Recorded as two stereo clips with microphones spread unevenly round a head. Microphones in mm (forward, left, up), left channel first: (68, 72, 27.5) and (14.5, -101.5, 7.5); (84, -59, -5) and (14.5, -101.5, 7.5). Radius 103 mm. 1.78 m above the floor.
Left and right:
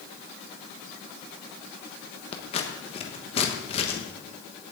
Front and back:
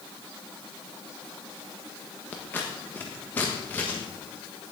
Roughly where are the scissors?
Left.